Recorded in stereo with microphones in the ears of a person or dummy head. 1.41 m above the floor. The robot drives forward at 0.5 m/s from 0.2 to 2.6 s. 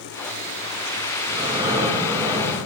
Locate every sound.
1.3 s breathing: 20° right (ahead or behind), 6.5 m; by 2.5 s 15° right (ahead or behind), 7 m